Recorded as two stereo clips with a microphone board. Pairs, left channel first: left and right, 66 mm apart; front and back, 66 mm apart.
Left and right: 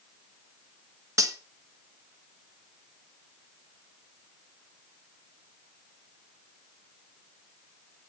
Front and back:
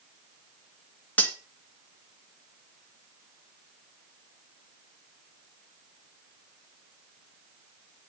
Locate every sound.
1.2 s cutlery clinking: 65° right, 1.4 m